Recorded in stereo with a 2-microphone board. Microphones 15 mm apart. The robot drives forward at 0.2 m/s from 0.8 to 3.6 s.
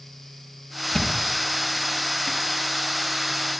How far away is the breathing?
I don't hear breathing.